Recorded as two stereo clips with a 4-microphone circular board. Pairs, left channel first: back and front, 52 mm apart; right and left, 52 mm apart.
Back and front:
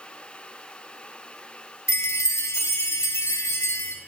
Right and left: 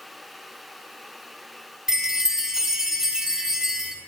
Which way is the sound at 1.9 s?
170° left.